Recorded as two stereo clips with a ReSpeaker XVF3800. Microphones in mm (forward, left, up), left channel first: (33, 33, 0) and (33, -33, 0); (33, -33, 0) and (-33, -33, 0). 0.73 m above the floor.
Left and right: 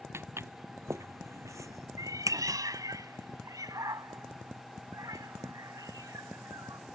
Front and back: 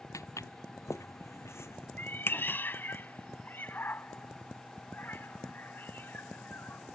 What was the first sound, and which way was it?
Footsteps, 40° right.